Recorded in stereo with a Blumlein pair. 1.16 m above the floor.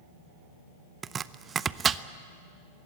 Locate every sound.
1.0 s chopping: 20° right, 0.6 m